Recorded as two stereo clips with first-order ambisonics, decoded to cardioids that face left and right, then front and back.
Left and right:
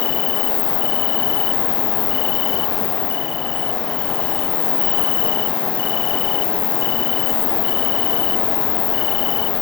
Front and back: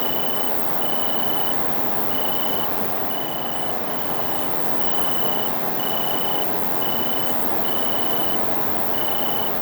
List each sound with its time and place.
0.0 s an insect: 90° left